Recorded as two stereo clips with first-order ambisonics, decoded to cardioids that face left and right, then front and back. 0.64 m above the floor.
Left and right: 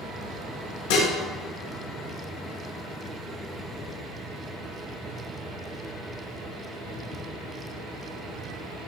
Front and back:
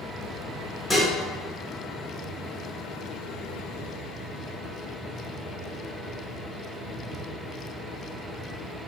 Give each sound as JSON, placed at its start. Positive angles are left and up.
{"t": 0.9, "sound": "dishes clattering", "azimuth_deg": 85, "distance_m": 0.8}